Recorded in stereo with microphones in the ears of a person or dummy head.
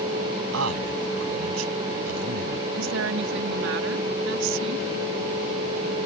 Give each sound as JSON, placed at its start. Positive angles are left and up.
{"t": 0.5, "sound": "a man speaking", "side_deg": -80}
{"t": 2.7, "sound": "a woman speaking", "side_deg": -70}